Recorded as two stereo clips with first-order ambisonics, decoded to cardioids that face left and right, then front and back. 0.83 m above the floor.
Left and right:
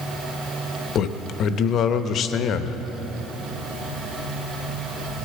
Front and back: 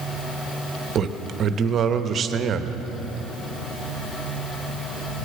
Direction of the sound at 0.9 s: 130° left.